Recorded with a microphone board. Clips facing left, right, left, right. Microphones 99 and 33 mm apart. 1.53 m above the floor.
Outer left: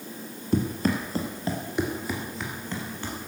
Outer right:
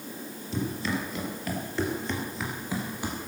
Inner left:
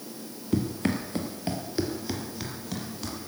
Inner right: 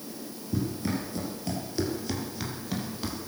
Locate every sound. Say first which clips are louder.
0.5 s running footsteps: outer left 5 dB, inner left 3 dB; 55° left (ahead or behind), 2.5 m; by 3.2 s 15° right (ahead or behind), 3.5 m